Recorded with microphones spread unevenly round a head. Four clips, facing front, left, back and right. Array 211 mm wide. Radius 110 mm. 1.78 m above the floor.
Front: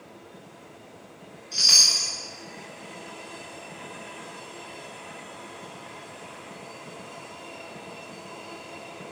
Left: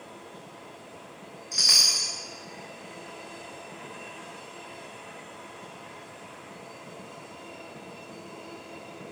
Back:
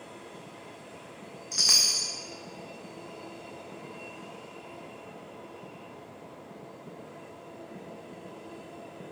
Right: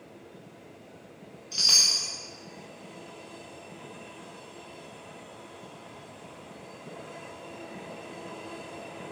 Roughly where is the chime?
Behind.